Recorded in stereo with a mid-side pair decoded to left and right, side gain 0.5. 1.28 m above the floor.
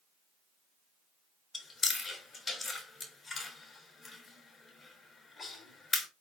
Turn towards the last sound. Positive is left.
turn(degrees=30)